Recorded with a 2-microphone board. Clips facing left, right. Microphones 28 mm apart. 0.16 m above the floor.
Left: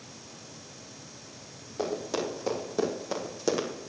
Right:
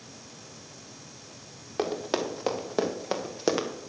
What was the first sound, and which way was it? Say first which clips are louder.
Running footsteps: right 2 dB; 50° right (ahead or behind).